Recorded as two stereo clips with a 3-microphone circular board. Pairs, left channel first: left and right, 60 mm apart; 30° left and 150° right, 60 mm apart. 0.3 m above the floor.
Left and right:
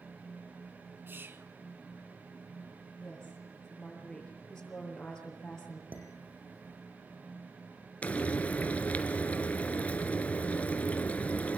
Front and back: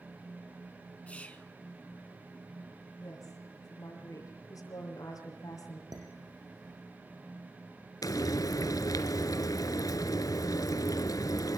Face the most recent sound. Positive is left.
turn(degrees=25)